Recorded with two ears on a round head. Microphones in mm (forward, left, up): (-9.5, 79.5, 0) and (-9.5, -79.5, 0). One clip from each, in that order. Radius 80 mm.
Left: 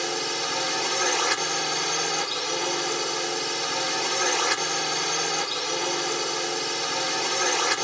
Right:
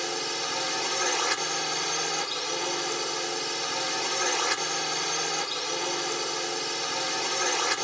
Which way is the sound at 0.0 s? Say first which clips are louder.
Left 3 dB; 5° right (ahead or behind).